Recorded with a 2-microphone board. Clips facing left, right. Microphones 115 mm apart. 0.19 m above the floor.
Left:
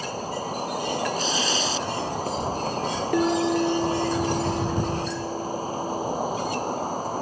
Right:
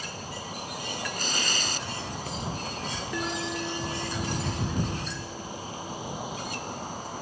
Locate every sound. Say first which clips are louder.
0.0 s an insect: left 9 dB; 45° left (ahead or behind)
1.2 s tearing paper: left 7 dB; 60° right (ahead or behind)
3.1 s a bell: left 12 dB; 60° left (ahead or behind)